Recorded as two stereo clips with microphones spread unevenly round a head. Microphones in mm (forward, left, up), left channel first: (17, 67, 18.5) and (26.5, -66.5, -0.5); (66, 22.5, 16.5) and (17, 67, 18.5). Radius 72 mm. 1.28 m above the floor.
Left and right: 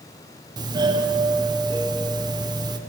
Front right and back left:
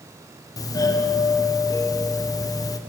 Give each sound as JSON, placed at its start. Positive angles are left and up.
{"t": 0.6, "sound": "a doorbell", "azimuth_deg": -35, "distance_m": 0.7}